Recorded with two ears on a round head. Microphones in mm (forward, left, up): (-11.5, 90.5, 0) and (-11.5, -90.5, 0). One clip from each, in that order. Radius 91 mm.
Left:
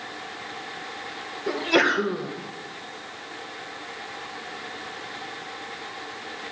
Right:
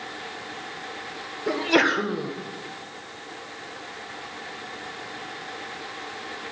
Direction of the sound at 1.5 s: 5° right (ahead or behind).